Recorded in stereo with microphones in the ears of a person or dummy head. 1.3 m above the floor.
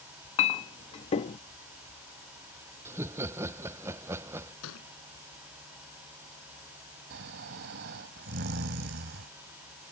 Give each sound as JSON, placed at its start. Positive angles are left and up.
{"t": 0.4, "sound": "a clink", "side_deg": 30}
{"t": 2.9, "sound": "laughter", "side_deg": -15}
{"t": 4.6, "sound": "a thud", "side_deg": 80}
{"t": 7.1, "sound": "snoring", "side_deg": -50}